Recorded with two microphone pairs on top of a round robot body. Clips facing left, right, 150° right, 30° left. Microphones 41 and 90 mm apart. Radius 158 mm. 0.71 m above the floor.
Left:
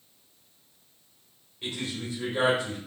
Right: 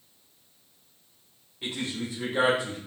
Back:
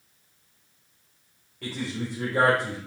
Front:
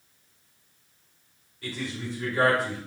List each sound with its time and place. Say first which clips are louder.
1.6 s a man speaking: right 1 dB, back 2 dB; 165° right, 3.5 m